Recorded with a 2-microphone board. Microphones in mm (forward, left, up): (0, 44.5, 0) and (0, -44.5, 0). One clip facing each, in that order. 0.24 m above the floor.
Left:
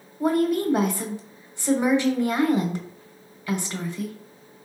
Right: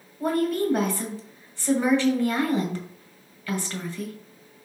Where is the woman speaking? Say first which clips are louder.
Left 2 dB; 15° left (ahead or behind), 0.9 m.